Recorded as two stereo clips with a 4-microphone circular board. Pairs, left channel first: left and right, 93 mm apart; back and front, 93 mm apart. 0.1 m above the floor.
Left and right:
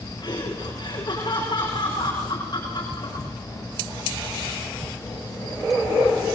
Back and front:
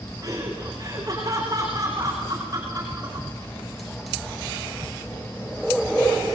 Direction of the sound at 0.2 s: 55° left.